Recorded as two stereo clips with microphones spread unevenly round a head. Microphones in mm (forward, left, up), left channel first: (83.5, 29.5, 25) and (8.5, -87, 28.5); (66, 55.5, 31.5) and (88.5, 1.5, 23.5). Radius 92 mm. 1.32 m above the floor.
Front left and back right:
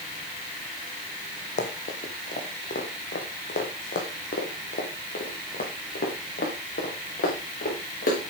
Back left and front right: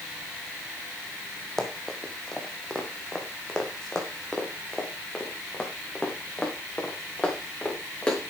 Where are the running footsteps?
40° left, 2 m; by 8.3 s 35° left, 5.5 m.